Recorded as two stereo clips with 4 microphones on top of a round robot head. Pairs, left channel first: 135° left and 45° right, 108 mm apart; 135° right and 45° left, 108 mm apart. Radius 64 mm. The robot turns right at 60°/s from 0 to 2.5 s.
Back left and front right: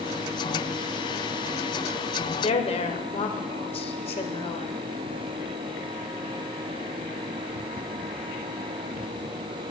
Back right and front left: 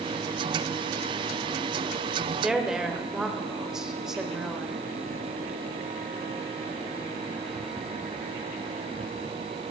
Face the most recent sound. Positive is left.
turn(degrees=130)